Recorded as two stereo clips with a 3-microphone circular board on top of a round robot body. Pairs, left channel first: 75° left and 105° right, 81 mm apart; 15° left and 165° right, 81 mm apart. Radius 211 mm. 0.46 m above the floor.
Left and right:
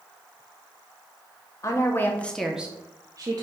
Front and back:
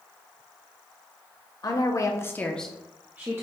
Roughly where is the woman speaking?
Ahead left.